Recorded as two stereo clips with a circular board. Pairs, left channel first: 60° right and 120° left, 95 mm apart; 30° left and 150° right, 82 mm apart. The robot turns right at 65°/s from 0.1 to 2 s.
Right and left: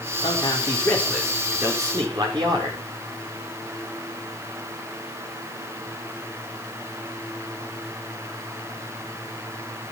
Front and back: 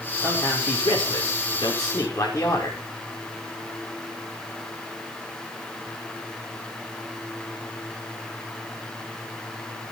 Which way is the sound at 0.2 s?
35° right.